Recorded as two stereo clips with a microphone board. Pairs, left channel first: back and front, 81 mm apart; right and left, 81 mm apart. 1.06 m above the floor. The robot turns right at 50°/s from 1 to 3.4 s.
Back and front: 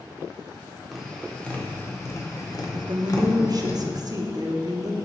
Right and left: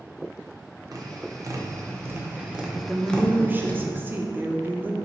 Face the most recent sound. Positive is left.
turn(degrees=25)